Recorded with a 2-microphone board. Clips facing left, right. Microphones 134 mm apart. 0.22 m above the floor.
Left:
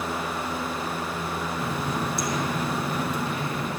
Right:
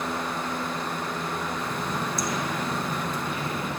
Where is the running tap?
65° left (ahead or behind), 1.9 m.